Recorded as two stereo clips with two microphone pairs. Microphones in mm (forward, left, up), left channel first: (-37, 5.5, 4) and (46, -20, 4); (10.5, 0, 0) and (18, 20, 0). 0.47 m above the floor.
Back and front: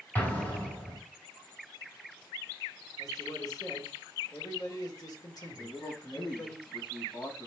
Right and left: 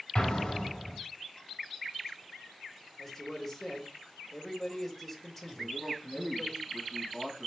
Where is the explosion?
135° right, 1.6 m.